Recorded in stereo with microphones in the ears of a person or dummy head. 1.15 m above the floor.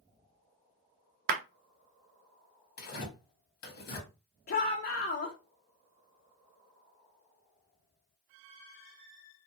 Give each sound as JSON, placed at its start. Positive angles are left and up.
{"t": 1.3, "sound": "a clap", "side_deg": -45, "distance_m": 0.6}
{"t": 2.8, "sound": "tearing paper", "side_deg": 50, "distance_m": 1.3}
{"t": 4.5, "sound": "a shout", "side_deg": 50, "distance_m": 0.7}